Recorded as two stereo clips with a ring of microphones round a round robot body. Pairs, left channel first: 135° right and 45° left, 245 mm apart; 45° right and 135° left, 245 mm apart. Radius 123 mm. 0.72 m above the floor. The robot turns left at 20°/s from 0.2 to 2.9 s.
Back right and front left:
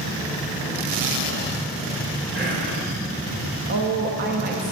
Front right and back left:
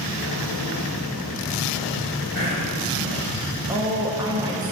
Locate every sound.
2.4 s whispering: 90° left, 2.5 m; by 2.8 s 80° left, 2.5 m
3.7 s a woman speaking: 70° left, 0.6 m